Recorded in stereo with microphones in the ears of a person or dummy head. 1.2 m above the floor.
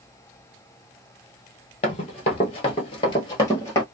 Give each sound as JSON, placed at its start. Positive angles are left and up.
{"t": 1.8, "sound": "running footsteps", "side_deg": 35, "distance_m": 1.4}